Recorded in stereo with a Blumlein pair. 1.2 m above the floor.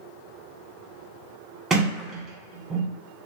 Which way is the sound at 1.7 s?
15° right.